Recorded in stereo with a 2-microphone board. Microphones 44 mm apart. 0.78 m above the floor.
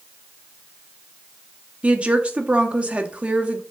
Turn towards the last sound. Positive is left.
turn(degrees=-25)  # may be behind; listen again after turning